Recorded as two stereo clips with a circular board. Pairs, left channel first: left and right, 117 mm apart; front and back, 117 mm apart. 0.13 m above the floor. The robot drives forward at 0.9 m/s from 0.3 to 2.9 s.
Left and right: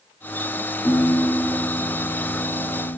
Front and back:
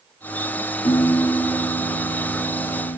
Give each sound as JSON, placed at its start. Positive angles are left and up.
{"t": 0.8, "sound": "a piano", "azimuth_deg": 25, "distance_m": 3.0}